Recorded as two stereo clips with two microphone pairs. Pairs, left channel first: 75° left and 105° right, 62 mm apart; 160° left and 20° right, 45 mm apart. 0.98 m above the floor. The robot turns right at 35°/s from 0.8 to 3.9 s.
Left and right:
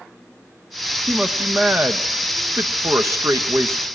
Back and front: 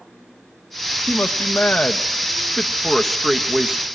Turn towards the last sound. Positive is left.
turn(degrees=-85)